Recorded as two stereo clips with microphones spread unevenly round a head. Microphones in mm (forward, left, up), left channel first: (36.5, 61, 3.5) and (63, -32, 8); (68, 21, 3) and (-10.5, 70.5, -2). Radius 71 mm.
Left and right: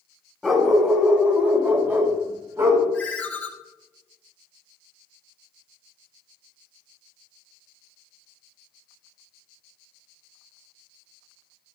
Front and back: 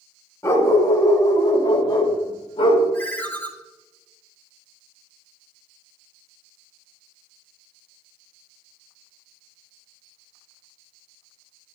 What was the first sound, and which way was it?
A dog barking, 15° left.